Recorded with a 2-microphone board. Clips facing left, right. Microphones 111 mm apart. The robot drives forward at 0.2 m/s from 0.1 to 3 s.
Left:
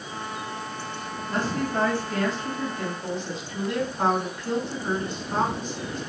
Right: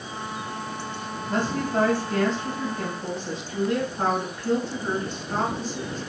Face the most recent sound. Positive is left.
turn(degrees=-30)  # may be behind; listen again after turning